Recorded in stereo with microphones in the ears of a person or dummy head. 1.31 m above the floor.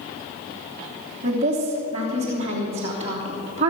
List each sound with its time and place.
1.2 s a woman speaking: 30° right (ahead or behind), 3 m